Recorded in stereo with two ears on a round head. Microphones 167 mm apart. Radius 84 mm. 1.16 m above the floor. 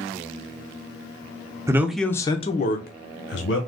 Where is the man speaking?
15° right (ahead or behind), 0.6 m; by 3.6 s 70° left (ahead or behind), 1.1 m.